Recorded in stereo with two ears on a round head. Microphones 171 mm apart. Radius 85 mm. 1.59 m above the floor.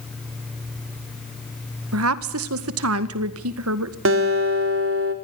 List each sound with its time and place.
1.9 s a woman speaking: 85° right, 2.0 m
4.0 s a guitar: 75° right (ahead or behind), 3.5 m